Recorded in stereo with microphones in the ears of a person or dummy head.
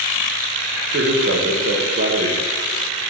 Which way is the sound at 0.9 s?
45° right (ahead or behind).